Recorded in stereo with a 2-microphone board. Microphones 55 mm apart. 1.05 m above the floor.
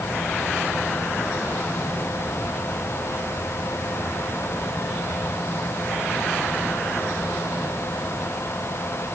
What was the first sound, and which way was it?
Only background noise.